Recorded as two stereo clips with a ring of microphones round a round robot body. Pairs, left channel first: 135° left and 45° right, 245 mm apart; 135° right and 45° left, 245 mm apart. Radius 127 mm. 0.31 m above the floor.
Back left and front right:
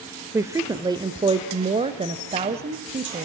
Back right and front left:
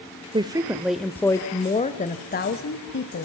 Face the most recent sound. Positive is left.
turn(degrees=-105)